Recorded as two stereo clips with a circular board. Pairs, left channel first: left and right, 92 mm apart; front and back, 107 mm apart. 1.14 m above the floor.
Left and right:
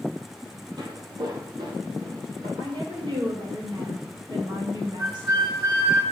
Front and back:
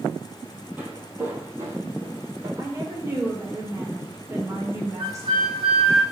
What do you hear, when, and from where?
0.8 s footsteps: 105° right, 1.9 m; by 2.5 s 125° right, 2.5 m
2.6 s a woman speaking: 120° right, 1.9 m
5.0 s a flute: 150° right, 4.5 m